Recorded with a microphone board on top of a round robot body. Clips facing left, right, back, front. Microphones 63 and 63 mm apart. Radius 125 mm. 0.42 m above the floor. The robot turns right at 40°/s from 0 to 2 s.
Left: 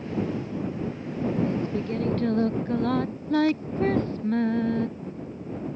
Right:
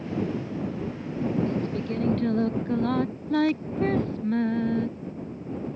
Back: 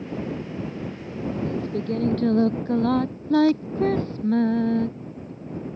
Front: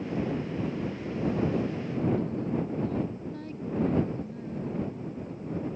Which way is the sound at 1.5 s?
160° left.